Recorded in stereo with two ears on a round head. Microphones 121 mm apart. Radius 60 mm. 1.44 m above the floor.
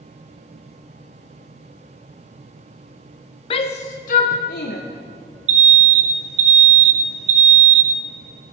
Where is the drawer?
No drawer in this recording.